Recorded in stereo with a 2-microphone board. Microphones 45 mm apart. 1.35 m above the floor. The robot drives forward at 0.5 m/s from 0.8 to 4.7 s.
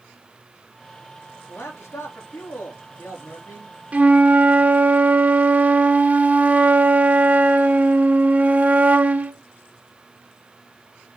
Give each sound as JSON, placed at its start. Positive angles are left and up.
{"t": 1.5, "sound": "a man speaking", "side_deg": 75, "distance_m": 3.5}
{"t": 3.9, "sound": "a flute", "side_deg": -30, "distance_m": 1.1}